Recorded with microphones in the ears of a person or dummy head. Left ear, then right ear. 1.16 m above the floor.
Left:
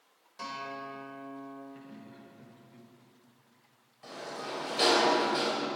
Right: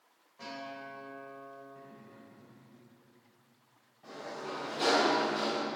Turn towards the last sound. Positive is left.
turn(degrees=50)  # may be behind; listen again after turning